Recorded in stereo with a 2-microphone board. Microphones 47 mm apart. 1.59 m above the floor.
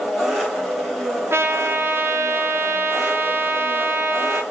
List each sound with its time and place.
0.0 s an engine running: 5° right (ahead or behind), 1.7 m
1.3 s a trumpet: 60° right (ahead or behind), 0.8 m